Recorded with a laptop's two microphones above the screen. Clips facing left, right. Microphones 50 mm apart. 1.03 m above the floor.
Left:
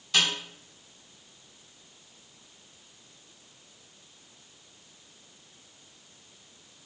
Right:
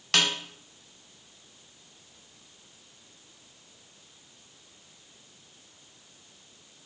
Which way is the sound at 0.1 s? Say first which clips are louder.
Right 1 dB; 70° right (ahead or behind).